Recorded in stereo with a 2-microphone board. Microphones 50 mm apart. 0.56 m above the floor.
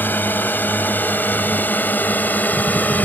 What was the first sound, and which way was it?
A drone, 40° left (ahead or behind).